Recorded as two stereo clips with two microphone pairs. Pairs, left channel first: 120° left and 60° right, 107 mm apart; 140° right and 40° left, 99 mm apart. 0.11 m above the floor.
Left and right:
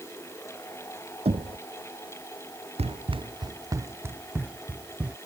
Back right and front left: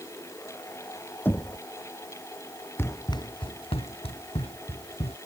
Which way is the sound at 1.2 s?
70° right.